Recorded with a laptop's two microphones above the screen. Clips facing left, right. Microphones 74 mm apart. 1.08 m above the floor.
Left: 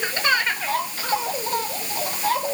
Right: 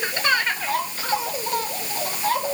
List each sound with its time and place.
Only background noise.